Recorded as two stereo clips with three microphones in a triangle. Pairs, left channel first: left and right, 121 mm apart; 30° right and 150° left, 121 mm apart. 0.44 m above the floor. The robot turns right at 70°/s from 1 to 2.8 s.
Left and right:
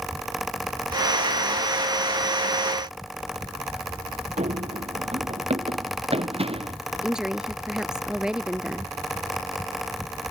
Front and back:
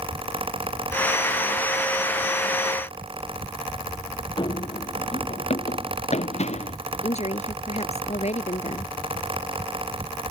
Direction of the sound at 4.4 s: 75° right.